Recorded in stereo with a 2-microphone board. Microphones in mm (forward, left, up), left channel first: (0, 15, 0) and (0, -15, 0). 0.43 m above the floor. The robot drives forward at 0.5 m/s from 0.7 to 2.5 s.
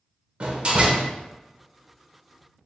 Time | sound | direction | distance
0.4 | a door slam | 40° right (ahead or behind) | 0.7 m